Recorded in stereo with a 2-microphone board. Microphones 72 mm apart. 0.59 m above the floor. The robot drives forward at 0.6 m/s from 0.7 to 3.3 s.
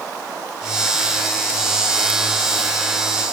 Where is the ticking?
I don't hear ticking.